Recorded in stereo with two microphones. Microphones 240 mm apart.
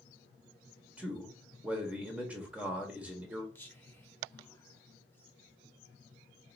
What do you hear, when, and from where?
1.0 s a man speaking: 5° right (ahead or behind), 1.0 m
3.5 s whispering: 10° left (ahead or behind), 1.0 m